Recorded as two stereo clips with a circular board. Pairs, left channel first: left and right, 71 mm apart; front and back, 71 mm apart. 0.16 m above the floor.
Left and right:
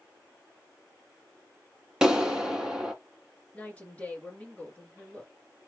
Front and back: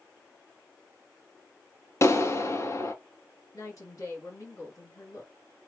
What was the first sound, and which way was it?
A clap, 15° right.